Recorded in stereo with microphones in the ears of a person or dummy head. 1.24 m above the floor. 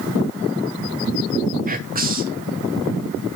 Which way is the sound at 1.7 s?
45° right (ahead or behind).